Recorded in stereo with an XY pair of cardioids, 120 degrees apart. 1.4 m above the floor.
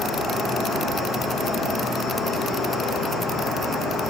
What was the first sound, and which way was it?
An insect, 50° left.